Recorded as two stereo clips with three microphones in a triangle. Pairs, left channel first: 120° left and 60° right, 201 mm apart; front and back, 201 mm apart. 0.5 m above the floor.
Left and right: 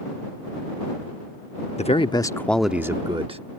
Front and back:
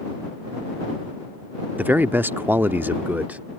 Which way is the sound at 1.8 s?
105° left.